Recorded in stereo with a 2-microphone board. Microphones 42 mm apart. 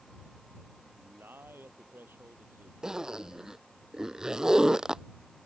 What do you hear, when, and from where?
0.9 s a man speaking: 55° right (ahead or behind)
2.8 s a zipper: 15° right (ahead or behind)